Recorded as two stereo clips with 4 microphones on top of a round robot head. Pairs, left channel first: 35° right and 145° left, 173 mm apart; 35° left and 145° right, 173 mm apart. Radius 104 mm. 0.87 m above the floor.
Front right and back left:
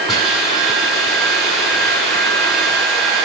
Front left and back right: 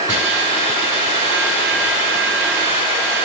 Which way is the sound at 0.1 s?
125° right.